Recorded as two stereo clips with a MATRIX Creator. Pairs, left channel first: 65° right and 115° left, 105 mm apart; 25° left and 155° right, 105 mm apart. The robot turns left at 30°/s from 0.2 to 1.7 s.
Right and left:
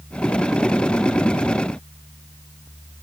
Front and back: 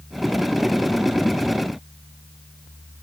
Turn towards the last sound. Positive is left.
No sound to turn to.